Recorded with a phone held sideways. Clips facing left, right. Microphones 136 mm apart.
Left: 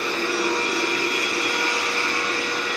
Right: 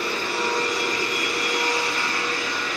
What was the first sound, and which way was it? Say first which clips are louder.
A machine running: left 2 dB; 65° left (ahead or behind).